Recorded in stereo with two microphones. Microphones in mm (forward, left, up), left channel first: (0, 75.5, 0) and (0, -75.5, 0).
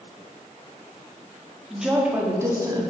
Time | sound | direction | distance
1.7 | a woman speaking | centre (ahead or behind) | 1.5 m